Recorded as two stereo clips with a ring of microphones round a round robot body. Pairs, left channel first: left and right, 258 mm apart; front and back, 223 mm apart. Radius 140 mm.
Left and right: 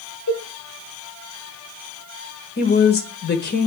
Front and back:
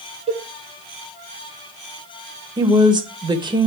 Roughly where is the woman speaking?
Behind left.